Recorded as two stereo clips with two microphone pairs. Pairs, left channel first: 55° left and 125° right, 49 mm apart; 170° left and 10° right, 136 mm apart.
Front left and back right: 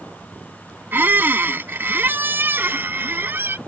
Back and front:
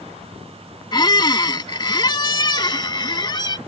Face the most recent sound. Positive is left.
turn(degrees=-140)